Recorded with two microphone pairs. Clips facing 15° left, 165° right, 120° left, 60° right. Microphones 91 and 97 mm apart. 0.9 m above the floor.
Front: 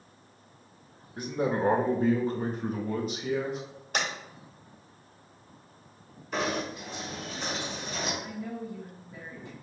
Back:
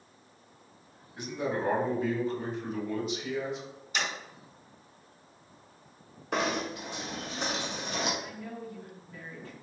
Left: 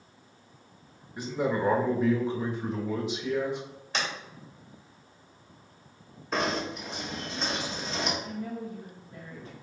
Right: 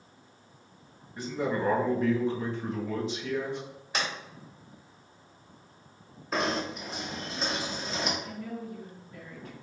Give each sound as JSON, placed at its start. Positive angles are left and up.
{"t": 1.2, "sound": "a man speaking", "azimuth_deg": 50, "distance_m": 1.0}
{"t": 3.9, "sound": "a sliding door", "azimuth_deg": 25, "distance_m": 2.0}
{"t": 6.3, "sound": "knocking", "azimuth_deg": -150, "distance_m": 1.4}
{"t": 8.2, "sound": "a woman speaking", "azimuth_deg": 75, "distance_m": 1.1}